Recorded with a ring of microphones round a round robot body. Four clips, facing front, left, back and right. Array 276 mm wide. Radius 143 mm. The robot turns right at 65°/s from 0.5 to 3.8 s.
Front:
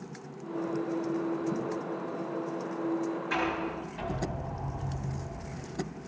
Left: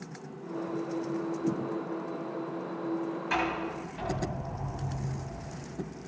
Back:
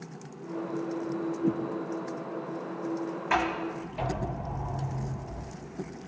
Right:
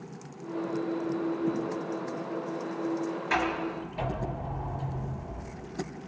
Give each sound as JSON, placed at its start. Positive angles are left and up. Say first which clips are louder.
{"t": 1.4, "sound": "a whoosh", "louder": "even, back 4 dB", "azimuth_deg": 170, "distance_m": 4.0}
{"t": 3.3, "sound": "a sliding door", "louder": "right 2 dB, back 7 dB", "azimuth_deg": -170, "distance_m": 5.0}